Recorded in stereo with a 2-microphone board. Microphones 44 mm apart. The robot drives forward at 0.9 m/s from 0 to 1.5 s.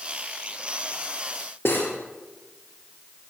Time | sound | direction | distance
1.6 | cutlery clinking | 65° left (ahead or behind) | 2.5 m